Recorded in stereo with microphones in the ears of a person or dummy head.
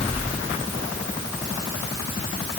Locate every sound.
Only background noise.